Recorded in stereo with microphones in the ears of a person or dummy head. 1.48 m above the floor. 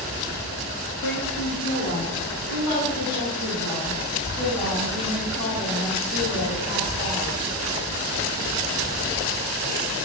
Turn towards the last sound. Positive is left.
turn(degrees=85)